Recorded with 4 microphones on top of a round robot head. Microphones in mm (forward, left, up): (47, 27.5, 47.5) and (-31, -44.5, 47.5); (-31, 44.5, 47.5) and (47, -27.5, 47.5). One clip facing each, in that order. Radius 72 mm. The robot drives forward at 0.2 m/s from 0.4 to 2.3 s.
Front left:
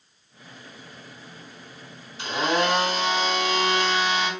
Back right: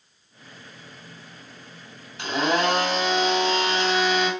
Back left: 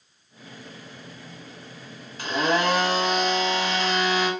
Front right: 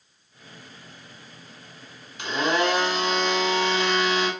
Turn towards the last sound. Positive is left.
turn(degrees=-175)